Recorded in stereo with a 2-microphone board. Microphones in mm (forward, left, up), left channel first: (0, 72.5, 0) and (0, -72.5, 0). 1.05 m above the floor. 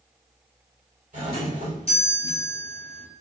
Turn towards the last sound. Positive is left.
turn(degrees=-50)  # may be behind; listen again after turning